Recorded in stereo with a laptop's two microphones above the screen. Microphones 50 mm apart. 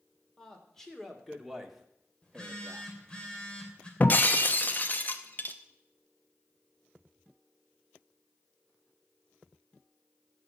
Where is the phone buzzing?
20° left (ahead or behind), 3 m.